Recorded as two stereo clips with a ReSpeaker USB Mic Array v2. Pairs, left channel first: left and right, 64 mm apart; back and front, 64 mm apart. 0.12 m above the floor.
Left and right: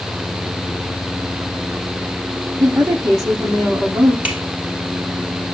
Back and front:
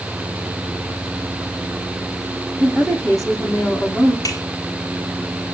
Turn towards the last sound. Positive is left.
turn(degrees=-160)